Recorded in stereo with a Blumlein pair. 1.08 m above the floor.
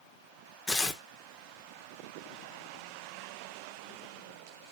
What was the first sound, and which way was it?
Tearing paper, 10° left.